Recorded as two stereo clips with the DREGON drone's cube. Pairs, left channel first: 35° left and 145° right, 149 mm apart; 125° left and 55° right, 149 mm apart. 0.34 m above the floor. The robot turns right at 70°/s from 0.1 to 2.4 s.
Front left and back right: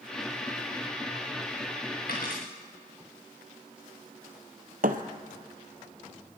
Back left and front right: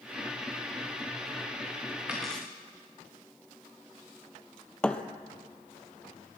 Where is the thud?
155° right, 0.9 m.